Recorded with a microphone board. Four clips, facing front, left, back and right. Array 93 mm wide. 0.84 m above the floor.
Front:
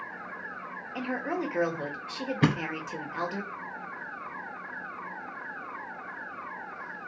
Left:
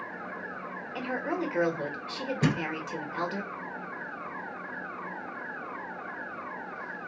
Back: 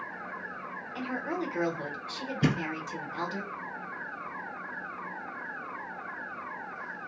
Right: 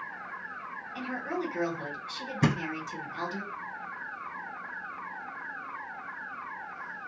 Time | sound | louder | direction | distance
0.9 | a woman speaking | left 3 dB, front 2 dB | 45° left | 1.3 m
2.4 | a thud | right 1 dB, front 2 dB | 25° right | 1.4 m